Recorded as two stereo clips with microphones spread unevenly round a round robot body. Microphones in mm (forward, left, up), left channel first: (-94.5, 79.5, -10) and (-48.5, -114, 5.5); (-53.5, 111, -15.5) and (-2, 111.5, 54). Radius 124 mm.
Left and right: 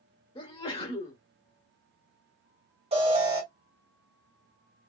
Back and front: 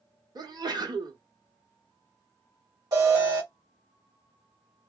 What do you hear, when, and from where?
0.3 s a sneeze: 65° left, 1.2 m
2.9 s an alarm: 105° right, 2.0 m